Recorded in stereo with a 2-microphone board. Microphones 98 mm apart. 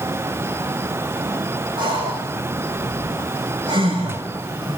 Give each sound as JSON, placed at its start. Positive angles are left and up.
{"t": 1.8, "sound": "breathing", "side_deg": -50, "distance_m": 6.5}